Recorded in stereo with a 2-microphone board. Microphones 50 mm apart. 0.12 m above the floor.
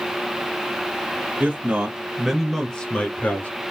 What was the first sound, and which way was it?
A man speaking, 25° right (ahead or behind).